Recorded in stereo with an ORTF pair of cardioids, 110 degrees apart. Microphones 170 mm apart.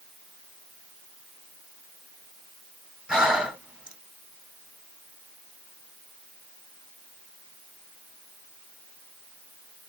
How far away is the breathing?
About 1.2 m.